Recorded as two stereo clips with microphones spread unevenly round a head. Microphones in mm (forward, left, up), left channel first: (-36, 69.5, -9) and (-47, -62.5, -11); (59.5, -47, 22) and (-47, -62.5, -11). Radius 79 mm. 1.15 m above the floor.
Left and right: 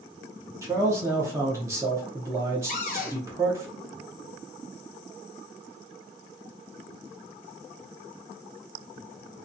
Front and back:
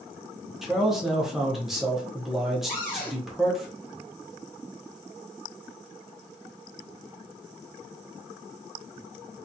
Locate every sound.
0.6 s a man speaking: 130° right, 0.6 m
2.7 s a cupboard door: 100° left, 0.8 m